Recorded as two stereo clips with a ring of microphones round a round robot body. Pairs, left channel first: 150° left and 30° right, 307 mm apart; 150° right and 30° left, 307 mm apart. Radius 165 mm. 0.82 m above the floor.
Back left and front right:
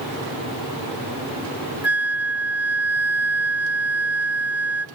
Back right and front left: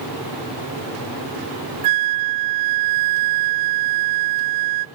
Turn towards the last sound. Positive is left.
turn(degrees=55)